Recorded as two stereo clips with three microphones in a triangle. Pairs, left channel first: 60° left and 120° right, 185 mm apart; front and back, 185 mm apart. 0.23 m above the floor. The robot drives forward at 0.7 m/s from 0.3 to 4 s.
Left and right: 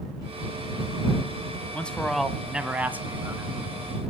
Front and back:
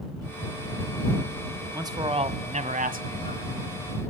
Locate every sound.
1.7 s a man speaking: 130° left, 1.1 m; by 3.8 s 170° left, 2 m